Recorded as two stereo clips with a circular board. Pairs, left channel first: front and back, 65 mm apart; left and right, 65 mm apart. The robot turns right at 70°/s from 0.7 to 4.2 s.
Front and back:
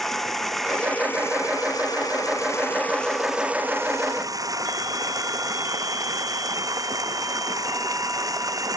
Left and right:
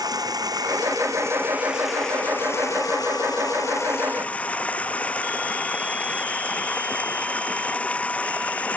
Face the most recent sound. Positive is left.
turn(degrees=160)